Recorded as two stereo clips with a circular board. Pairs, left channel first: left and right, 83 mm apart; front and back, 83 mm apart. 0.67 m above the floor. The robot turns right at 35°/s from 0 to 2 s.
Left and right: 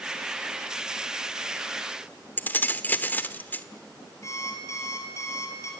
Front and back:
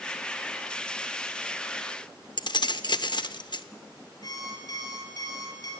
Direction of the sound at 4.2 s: 40° left.